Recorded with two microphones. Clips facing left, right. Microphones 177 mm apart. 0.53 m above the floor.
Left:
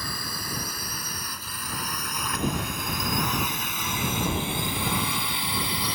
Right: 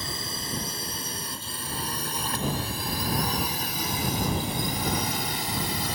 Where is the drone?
25° right (ahead or behind); by 6.0 s 45° right (ahead or behind).